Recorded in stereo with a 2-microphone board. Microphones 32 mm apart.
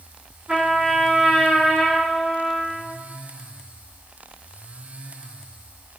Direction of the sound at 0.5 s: 35° right (ahead or behind).